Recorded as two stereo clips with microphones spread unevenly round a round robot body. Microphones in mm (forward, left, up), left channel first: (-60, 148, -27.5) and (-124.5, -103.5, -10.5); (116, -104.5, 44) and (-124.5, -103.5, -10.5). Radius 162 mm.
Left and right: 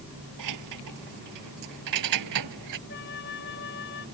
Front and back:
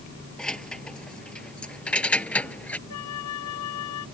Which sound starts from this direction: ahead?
A flute, at 2.9 s.